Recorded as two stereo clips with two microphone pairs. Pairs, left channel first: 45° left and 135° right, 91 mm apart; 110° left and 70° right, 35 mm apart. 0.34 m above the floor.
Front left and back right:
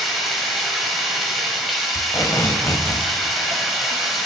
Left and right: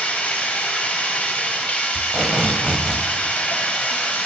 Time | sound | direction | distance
0.0 | running water | 135° left | 1.4 m
1.9 | tape being pulled | 5° right | 0.7 m